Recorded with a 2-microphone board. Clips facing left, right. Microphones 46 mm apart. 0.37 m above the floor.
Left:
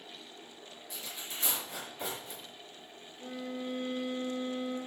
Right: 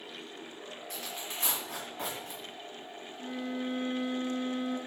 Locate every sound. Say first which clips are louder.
0.9 s tearing paper: right 2 dB; 60° right (ahead or behind), 3 m
3.2 s a violin: right 3 dB; 40° right (ahead or behind), 2.5 m